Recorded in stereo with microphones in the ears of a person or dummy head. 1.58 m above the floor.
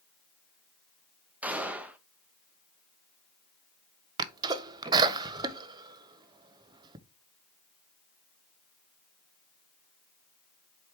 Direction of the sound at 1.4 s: 10° right (ahead or behind).